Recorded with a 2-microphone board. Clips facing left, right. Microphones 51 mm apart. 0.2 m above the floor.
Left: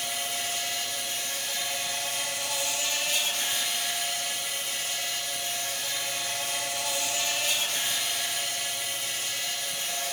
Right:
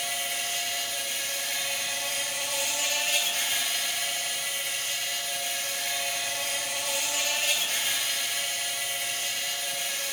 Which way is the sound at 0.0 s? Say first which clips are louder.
Right 1 dB; 60° right (ahead or behind).